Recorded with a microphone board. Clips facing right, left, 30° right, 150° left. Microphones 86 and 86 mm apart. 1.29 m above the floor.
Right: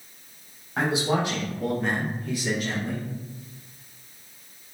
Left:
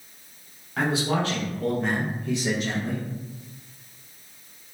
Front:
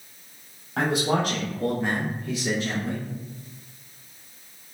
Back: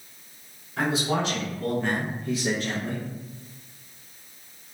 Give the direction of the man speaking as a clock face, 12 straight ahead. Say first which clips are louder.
Even, front 2 dB; 1 o'clock.